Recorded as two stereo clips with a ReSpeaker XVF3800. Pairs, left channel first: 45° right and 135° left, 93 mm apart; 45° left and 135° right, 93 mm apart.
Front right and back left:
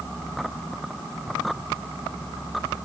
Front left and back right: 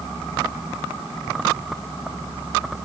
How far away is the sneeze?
I don't hear a sneeze.